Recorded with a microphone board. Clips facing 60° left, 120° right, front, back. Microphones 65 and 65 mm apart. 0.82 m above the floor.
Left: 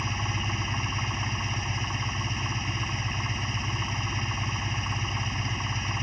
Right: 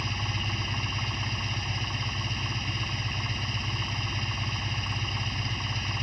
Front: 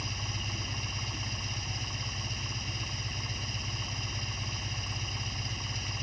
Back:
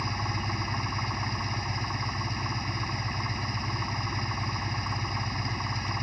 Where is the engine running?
135° left.